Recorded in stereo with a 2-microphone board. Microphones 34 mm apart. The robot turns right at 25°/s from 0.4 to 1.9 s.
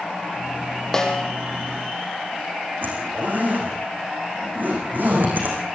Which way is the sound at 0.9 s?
15° left (ahead or behind).